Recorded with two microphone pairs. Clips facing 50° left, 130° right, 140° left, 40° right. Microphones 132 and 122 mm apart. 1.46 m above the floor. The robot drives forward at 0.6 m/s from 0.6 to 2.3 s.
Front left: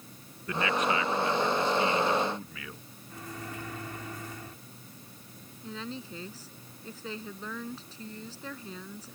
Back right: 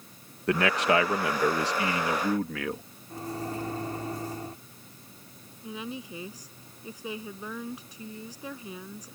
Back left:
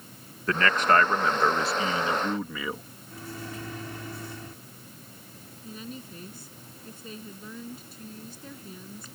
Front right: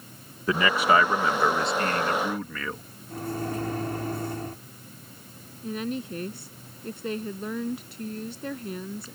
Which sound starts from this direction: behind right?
A man speaking, at 0.5 s.